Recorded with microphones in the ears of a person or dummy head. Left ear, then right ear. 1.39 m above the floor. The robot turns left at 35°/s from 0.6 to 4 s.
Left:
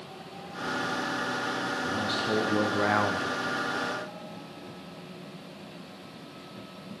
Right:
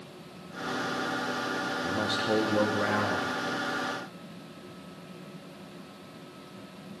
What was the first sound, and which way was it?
A man speaking, 165° right.